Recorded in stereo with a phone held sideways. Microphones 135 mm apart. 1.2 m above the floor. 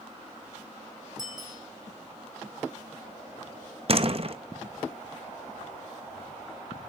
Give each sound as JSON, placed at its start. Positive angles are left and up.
{"t": 1.2, "sound": "a bicycle bell", "side_deg": -30, "distance_m": 9.0}
{"t": 3.9, "sound": "a door slam", "side_deg": -45, "distance_m": 0.9}